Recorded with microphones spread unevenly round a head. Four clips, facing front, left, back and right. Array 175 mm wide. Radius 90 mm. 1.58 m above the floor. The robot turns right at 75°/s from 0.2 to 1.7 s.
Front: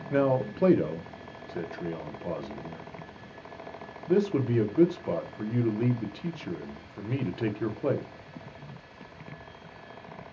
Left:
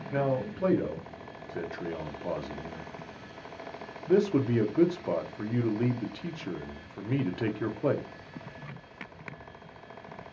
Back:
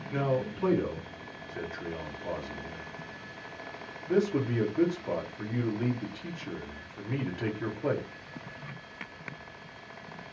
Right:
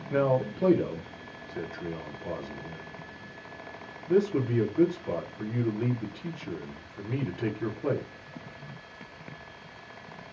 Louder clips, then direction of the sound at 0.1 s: Right 4 dB, front 5 dB; 40° right.